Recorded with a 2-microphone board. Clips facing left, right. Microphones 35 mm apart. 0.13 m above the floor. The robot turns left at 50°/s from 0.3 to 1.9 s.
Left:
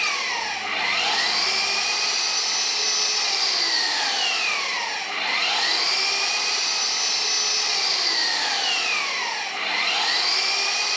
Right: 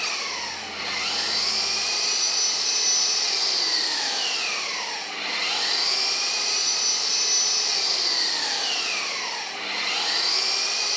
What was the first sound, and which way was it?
An engine running, 125° left.